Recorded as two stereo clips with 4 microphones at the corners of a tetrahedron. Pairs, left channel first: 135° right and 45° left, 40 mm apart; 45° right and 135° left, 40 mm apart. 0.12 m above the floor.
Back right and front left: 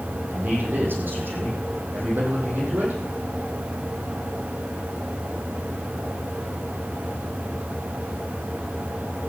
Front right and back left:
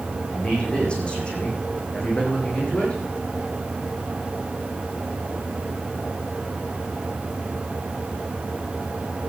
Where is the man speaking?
15° left, 6 m.